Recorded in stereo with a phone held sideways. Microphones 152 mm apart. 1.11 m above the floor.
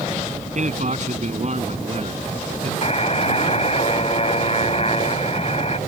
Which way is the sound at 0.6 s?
55° right (ahead or behind).